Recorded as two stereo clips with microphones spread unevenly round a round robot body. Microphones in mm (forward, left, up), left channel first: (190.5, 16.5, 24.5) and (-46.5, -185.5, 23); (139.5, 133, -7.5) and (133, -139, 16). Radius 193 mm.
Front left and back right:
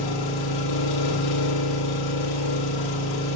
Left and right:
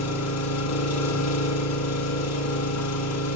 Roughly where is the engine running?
Ahead left.